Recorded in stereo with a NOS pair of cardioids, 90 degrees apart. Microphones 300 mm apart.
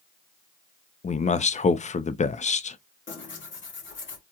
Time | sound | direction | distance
1.0 | a man speaking | 25° left | 0.6 m
3.1 | tearing paper | 40° left | 2 m